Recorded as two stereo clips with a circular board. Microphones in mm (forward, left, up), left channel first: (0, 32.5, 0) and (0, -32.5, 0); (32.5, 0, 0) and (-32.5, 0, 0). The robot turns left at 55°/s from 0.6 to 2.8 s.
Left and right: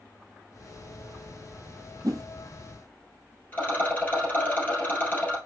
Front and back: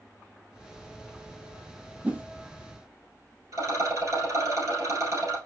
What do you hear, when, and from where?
2.0 s a whoosh: 110° right, 0.8 m; by 2.2 s 120° right, 0.8 m
3.5 s a rattle: 150° left, 2 m